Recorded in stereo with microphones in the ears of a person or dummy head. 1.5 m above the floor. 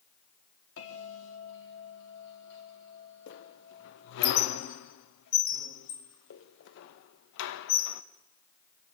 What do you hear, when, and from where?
0.8 s a bell: 80° left, 3.5 m
3.3 s a squeak: 65° left (ahead or behind), 1.0 m